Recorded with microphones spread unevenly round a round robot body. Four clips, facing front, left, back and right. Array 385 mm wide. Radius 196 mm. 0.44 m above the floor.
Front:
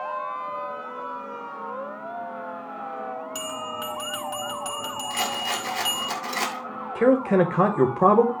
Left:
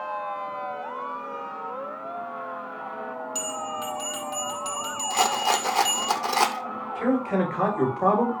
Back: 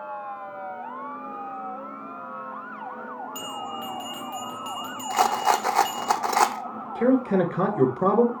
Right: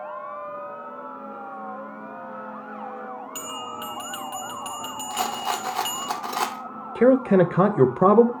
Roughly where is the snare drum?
I don't hear a snare drum.